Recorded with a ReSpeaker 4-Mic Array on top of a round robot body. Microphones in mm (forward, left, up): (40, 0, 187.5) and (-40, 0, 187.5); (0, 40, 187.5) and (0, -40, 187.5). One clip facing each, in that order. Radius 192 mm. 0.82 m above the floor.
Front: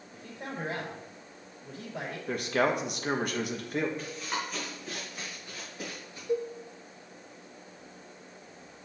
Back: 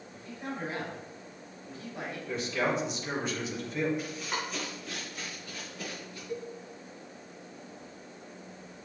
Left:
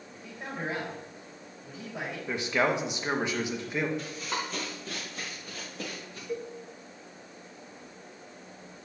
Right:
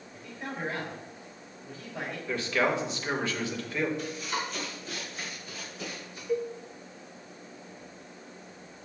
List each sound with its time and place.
0.1 s a man speaking: 15° left, 3.5 m
2.3 s a man speaking: 20° left, 1.3 m
4.0 s running footsteps: 100° left, 3.5 m; by 6.2 s 65° left, 5 m
6.3 s a cowbell: 5° right, 1.2 m